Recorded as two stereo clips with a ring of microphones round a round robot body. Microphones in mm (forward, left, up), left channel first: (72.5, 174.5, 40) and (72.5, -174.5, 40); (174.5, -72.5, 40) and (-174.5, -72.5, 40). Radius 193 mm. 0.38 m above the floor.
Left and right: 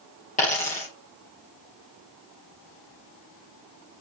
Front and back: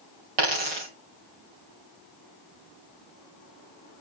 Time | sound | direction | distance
0.4 | a dropped coin | 165° left | 2.5 m